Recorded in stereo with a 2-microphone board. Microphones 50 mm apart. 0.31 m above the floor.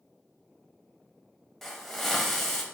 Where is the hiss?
5° left (ahead or behind), 0.5 m.